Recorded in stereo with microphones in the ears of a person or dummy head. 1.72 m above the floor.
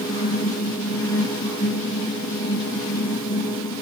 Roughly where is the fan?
Left.